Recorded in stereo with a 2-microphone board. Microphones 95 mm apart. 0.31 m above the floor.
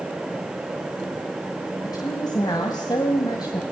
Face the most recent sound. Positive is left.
turn(degrees=45)  # may be behind; listen again after turning